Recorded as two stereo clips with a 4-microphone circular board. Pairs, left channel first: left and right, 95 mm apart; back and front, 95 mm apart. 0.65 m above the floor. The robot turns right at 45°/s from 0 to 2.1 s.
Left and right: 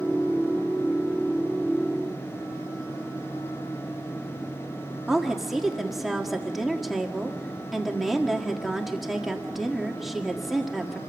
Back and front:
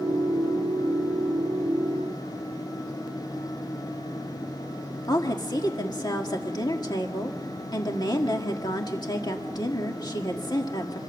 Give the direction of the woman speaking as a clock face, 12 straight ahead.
6 o'clock.